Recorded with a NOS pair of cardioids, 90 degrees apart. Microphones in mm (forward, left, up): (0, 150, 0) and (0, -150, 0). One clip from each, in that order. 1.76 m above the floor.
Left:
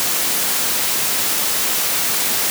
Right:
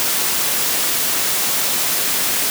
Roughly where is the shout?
I don't hear a shout.